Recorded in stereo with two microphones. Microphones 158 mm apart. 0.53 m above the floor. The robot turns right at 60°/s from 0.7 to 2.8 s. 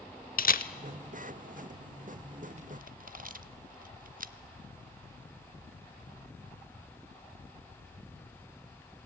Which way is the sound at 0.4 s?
65° left (ahead or behind).